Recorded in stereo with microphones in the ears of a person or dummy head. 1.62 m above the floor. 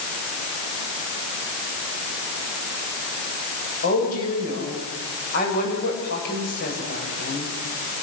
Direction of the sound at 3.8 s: 55° left (ahead or behind).